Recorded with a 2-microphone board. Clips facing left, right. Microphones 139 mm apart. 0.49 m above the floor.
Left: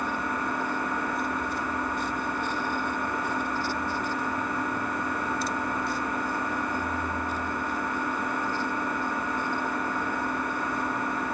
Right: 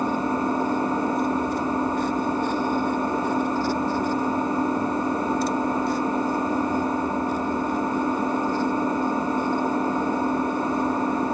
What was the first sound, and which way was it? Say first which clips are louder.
An engine running: right 7 dB; 30° right (ahead or behind).